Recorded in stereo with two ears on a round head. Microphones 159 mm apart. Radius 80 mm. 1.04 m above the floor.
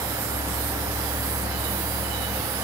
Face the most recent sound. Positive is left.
No sound to turn to.